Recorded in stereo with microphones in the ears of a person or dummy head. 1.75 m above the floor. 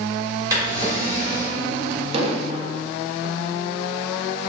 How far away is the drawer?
About 1.8 m.